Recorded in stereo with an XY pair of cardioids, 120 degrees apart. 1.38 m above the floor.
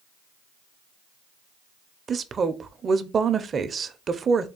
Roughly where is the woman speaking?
Ahead right.